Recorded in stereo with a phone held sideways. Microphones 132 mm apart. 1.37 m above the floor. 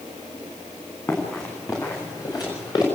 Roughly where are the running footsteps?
Left.